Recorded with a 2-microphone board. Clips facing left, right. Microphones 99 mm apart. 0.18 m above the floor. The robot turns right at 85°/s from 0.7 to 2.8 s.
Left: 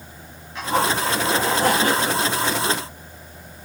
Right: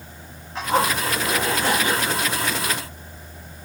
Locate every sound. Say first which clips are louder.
0.6 s a zipper: even; 35° right, 6.5 m; by 2.2 s 95° left, 6.5 m